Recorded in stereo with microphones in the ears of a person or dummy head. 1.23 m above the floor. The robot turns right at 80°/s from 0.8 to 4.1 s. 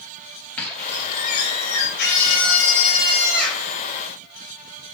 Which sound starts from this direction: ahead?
A squeak, at 0.6 s.